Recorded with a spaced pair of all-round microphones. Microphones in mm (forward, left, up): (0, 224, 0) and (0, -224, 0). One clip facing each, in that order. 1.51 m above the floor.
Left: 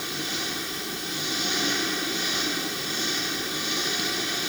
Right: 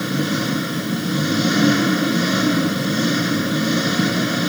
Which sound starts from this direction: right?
An engine running, at 0.0 s.